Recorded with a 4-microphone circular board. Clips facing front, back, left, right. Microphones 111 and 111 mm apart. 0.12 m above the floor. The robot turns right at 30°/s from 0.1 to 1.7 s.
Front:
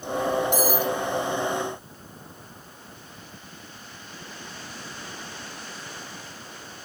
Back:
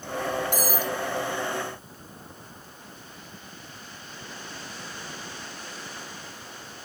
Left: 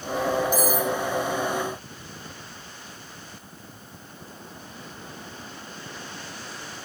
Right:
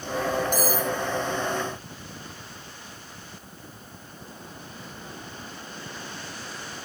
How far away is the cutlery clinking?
About 1.4 m.